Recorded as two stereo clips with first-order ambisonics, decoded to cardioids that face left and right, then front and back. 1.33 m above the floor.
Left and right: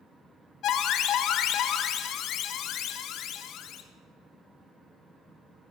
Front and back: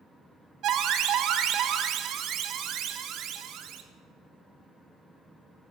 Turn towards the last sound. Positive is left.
turn(degrees=135)